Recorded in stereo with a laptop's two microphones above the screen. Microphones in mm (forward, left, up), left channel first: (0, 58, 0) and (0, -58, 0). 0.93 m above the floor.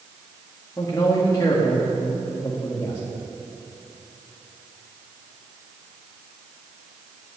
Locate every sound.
0.8 s a man speaking: 30° left (ahead or behind), 1.8 m